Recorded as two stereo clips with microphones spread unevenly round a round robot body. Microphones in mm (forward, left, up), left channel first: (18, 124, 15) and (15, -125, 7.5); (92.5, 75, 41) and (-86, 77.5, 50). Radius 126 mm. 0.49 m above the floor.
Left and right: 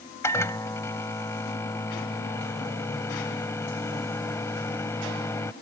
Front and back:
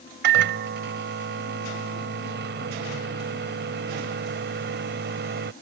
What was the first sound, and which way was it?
A microwave, 170° left.